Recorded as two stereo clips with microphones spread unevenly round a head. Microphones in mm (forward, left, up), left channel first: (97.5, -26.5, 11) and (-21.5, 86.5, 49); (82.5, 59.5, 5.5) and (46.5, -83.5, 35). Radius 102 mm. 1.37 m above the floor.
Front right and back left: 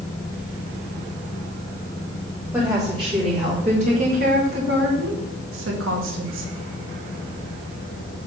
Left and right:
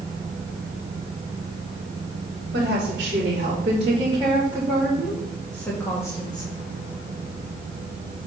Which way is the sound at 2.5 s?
150° right.